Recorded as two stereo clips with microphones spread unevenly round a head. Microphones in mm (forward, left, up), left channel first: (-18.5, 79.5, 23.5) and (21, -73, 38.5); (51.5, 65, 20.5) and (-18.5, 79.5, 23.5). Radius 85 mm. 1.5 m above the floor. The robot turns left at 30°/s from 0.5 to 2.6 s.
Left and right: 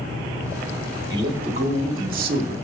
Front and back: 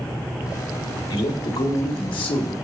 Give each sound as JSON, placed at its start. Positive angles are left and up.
{"t": 1.1, "sound": "a man speaking", "azimuth_deg": -10, "distance_m": 1.3}